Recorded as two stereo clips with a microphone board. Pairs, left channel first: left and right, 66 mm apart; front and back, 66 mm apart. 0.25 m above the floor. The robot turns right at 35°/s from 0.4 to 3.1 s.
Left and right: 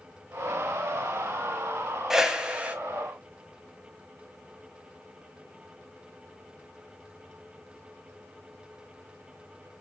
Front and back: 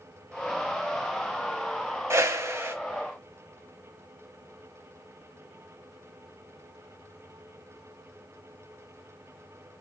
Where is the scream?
I don't hear a scream.